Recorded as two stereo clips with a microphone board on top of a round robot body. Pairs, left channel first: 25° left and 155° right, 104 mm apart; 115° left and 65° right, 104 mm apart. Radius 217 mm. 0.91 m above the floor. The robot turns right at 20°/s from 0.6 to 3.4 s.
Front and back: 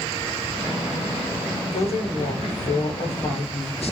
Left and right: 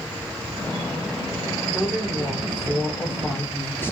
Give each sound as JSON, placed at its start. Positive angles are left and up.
{"t": 1.7, "sound": "a woman speaking", "azimuth_deg": 10, "distance_m": 1.3}